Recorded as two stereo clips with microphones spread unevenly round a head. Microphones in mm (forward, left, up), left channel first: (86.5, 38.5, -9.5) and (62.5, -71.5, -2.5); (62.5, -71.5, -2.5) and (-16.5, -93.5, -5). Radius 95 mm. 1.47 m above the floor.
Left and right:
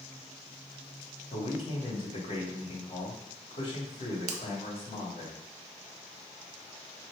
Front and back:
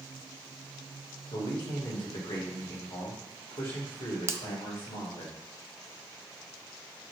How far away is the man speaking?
About 3 m.